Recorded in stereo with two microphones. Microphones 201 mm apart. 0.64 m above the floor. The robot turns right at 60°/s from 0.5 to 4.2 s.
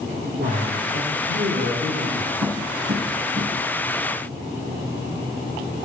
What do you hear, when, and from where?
0.4 s a man speaking: 125° right, 2 m; by 2.3 s 20° right, 2 m
2.4 s tapping: 85° right, 5.5 m; by 3.5 s 30° right (ahead or behind), 5.5 m